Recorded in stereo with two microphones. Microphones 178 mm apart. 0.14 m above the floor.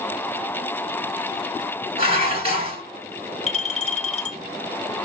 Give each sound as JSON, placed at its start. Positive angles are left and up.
{"t": 2.0, "sound": "dishes clattering", "side_deg": -35, "distance_m": 1.1}
{"t": 3.5, "sound": "a clink", "side_deg": 40, "distance_m": 0.9}